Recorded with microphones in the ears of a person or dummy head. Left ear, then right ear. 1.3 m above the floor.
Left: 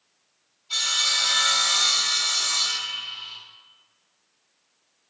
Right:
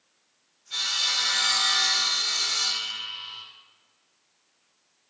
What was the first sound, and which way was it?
Sawing, 50° left (ahead or behind).